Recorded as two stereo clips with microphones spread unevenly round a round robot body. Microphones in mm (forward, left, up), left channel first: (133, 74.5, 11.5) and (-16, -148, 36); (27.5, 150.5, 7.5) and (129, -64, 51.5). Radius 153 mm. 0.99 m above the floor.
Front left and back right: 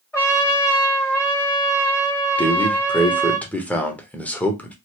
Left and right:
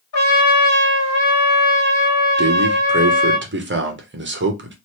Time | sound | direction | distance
0.1 | a trumpet | 145° left | 1.1 m
2.4 | a man speaking | 20° right | 1.1 m